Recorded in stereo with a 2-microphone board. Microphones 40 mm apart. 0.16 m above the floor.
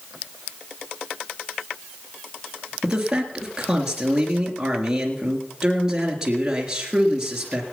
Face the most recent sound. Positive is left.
turn(degrees=-15)  # may be behind; listen again after turning